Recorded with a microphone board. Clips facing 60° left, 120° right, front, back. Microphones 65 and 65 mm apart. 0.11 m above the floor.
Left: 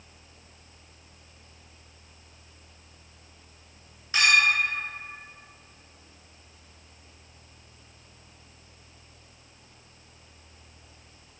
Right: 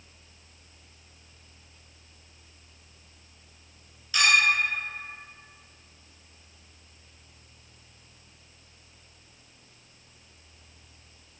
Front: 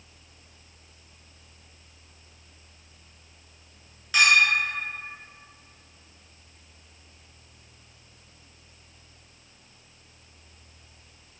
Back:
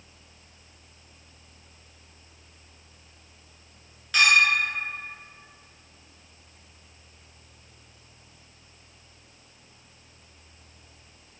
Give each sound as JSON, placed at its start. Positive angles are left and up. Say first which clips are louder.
{"t": 4.1, "sound": "a clink", "louder": "left 1 dB, even", "azimuth_deg": 80, "distance_m": 1.3}